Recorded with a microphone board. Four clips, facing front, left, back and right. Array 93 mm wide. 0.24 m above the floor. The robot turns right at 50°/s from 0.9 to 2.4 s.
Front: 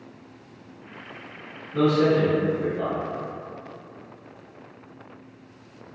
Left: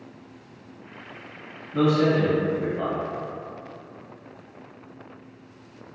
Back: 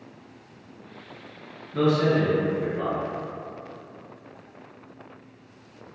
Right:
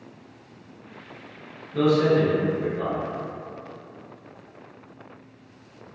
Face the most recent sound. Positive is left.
turn(degrees=105)